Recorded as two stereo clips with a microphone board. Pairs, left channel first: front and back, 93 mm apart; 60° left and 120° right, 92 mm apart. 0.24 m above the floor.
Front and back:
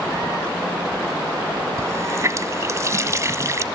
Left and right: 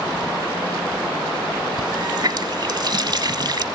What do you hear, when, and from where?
1.8 s a running tap: 135° right, 1.0 m